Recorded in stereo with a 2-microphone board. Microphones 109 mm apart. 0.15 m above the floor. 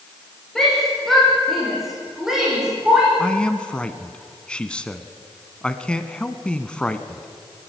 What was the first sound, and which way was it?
A shout, 5° left (ahead or behind).